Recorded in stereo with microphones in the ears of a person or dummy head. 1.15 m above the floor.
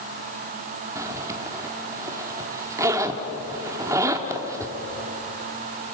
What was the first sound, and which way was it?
A zipper, 15° right (ahead or behind).